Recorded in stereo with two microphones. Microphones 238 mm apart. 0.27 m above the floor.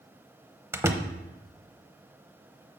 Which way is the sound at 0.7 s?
10° right (ahead or behind).